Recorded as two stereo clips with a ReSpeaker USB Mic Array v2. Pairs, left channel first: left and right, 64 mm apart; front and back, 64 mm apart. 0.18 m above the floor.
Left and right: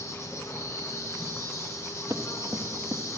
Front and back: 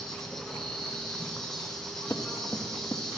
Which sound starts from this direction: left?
An insect, at 0.0 s.